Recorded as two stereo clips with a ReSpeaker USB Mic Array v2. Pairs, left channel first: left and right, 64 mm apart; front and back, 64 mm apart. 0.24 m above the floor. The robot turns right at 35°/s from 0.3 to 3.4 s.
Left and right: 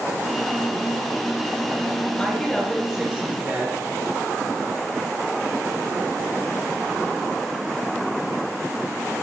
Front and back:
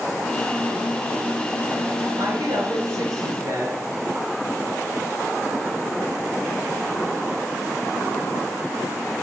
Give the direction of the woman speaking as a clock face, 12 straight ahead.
7 o'clock.